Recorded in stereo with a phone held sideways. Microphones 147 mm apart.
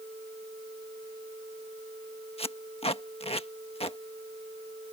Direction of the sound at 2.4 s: 40° left (ahead or behind).